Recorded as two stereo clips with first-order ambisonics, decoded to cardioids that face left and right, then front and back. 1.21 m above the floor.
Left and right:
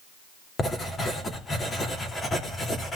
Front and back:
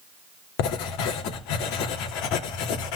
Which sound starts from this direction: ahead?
Writing, at 0.6 s.